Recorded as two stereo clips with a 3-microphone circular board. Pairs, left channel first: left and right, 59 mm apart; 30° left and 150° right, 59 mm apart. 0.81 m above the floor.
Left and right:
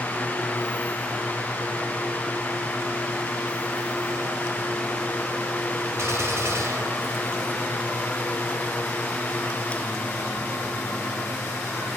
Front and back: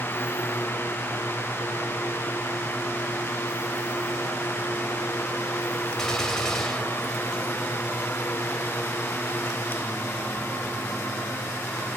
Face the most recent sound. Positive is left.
turn(degrees=-50)